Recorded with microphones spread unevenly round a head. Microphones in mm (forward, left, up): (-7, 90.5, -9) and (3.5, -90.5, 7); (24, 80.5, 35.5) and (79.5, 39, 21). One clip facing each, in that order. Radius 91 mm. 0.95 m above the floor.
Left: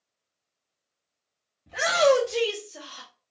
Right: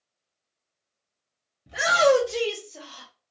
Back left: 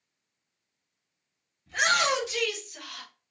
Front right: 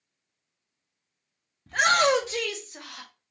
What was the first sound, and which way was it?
A shout, 10° right.